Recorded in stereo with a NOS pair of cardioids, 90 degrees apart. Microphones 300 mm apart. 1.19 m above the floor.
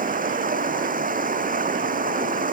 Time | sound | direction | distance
0.0 | running water | 25° right | ?